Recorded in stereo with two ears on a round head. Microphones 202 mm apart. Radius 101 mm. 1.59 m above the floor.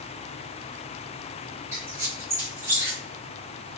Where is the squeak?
10° right (ahead or behind), 1.0 m.